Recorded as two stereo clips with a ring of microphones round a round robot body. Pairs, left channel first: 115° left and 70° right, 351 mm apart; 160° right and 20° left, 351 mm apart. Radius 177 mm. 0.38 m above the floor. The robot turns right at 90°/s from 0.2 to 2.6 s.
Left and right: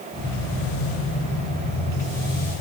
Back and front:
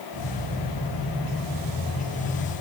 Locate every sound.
Only background noise.